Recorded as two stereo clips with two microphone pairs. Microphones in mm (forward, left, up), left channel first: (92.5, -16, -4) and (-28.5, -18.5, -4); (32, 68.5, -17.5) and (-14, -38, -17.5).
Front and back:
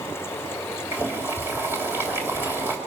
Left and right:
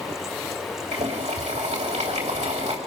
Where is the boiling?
110° right, 3 m.